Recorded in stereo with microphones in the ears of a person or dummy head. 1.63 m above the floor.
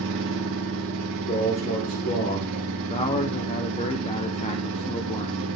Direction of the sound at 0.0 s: 70° right (ahead or behind).